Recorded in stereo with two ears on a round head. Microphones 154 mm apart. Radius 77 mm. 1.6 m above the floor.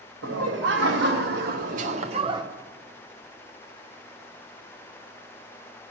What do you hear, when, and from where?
0.2 s laughter: 80° right, 1.4 m; by 2.4 s 25° right (ahead or behind), 0.8 m